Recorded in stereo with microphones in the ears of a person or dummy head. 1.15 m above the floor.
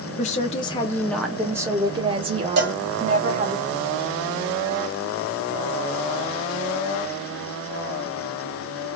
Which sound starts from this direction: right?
A cowbell, at 2.6 s.